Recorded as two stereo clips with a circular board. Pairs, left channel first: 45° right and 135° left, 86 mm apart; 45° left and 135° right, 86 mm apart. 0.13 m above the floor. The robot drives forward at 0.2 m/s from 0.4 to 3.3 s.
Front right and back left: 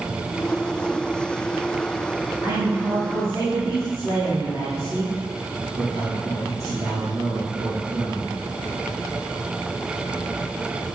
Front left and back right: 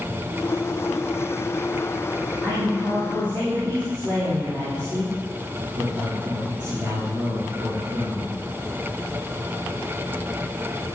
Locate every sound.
2.4 s a man speaking: 170° right, 9 m